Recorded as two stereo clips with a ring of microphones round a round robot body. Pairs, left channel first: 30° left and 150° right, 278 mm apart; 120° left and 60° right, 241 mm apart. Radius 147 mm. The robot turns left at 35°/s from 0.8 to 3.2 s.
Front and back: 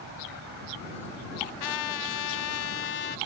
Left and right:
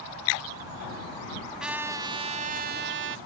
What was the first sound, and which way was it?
A trumpet, 25° left.